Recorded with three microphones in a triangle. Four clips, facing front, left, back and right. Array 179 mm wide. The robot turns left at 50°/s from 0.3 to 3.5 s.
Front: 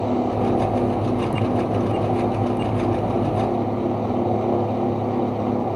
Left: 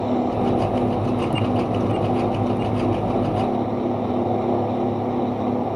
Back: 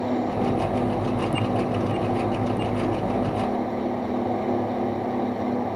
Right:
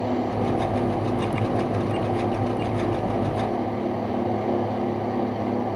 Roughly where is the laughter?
No laughter in this recording.